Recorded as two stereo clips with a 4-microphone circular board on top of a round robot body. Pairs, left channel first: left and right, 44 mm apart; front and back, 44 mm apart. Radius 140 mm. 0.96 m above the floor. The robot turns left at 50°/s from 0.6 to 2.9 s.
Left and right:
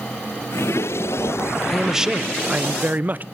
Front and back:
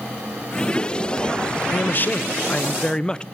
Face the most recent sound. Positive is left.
turn(degrees=-60)